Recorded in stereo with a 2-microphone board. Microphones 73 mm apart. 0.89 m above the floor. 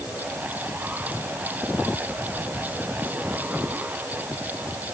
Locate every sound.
Only background noise.